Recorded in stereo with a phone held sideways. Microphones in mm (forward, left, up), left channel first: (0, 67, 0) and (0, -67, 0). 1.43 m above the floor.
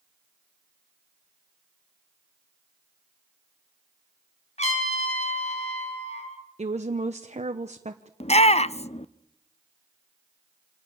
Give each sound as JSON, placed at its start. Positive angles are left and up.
{"t": 4.6, "sound": "a trumpet", "side_deg": 55, "distance_m": 3.5}
{"t": 6.6, "sound": "a woman speaking", "side_deg": -55, "distance_m": 1.0}
{"t": 8.2, "sound": "a shout", "side_deg": 50, "distance_m": 0.7}